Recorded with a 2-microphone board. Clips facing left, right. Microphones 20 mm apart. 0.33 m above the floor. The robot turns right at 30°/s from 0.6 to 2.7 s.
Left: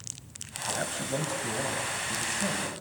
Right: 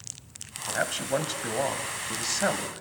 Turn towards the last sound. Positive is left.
turn(degrees=-80)